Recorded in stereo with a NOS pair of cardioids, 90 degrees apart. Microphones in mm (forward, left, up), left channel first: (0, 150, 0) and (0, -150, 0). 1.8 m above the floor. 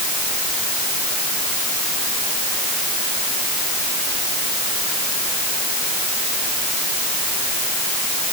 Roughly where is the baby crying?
I don't hear a baby crying.